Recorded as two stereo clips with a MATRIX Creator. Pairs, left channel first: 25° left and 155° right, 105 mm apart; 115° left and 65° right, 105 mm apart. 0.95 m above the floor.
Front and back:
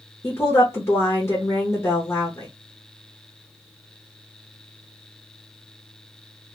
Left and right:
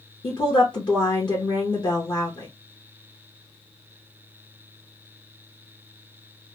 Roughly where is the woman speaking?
Left.